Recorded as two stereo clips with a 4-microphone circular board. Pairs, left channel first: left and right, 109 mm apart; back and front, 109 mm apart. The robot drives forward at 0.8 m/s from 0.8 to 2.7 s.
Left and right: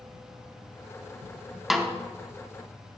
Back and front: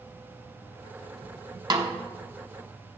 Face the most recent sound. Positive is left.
turn(degrees=-170)